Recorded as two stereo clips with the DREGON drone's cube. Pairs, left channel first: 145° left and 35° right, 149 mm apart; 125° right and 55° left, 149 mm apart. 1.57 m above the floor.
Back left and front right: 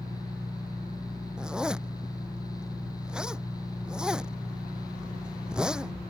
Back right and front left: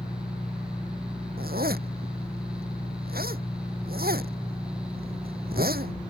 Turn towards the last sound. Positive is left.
turn(degrees=50)